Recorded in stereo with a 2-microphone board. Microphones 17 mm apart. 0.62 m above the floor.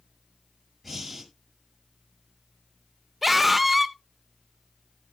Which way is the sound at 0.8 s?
5° left (ahead or behind).